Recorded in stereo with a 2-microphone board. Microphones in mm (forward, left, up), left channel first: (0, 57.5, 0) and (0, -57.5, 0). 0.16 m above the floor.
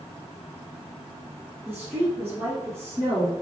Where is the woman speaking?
10° right (ahead or behind), 3 m; by 3.3 s 25° right (ahead or behind), 2 m.